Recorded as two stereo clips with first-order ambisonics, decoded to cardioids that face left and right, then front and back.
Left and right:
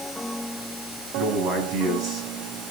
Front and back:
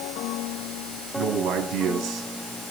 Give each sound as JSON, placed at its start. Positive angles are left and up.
{"t": 1.1, "sound": "a man speaking", "azimuth_deg": -140, "distance_m": 5.5}